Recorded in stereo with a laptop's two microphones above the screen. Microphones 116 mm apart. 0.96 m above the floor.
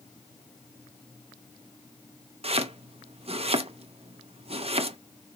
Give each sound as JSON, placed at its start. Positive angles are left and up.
{"t": 2.4, "sound": "chopping", "side_deg": -55, "distance_m": 0.6}